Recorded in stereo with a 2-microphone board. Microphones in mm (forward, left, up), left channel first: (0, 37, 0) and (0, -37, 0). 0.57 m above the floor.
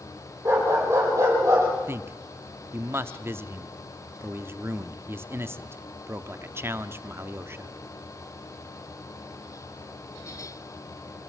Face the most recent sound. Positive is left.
turn(degrees=-30)  # may be behind; listen again after turning